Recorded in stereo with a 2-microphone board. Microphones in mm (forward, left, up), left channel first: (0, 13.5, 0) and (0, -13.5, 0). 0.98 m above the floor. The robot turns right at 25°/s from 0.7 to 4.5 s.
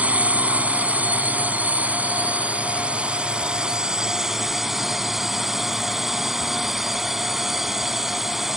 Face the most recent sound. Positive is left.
turn(degrees=-10)